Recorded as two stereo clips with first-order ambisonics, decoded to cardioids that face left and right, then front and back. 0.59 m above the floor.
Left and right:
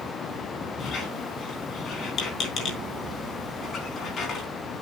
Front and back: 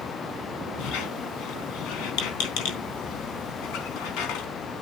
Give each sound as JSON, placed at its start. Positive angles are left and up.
{"t": 0.8, "sound": "a squeak", "azimuth_deg": 30, "distance_m": 3.5}